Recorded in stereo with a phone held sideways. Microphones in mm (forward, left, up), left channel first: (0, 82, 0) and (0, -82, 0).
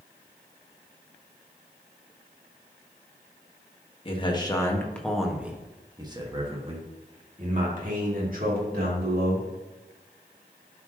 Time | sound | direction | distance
4.0 | a man speaking | 30° left (ahead or behind) | 1.5 m